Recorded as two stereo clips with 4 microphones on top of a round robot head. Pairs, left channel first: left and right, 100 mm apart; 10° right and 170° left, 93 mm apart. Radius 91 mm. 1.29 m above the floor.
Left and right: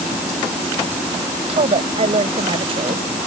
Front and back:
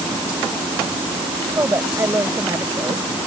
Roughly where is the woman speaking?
Behind right.